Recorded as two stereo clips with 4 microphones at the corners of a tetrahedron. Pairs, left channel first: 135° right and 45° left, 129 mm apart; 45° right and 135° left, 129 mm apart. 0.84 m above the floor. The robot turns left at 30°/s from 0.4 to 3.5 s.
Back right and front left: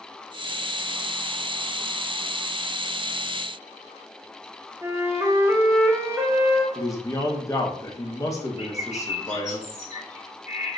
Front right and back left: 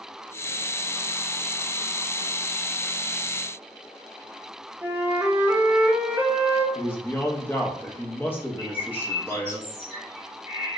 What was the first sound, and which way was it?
A flute, 85° left.